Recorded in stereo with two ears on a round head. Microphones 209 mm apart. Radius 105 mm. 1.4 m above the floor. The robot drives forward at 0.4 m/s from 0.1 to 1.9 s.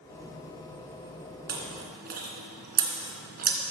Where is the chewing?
45° right (ahead or behind), 2.5 m.